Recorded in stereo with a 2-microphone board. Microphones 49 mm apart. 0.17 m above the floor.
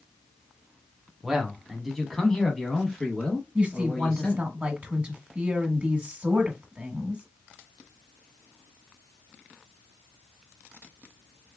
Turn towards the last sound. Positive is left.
turn(degrees=-30)  # may be behind; listen again after turning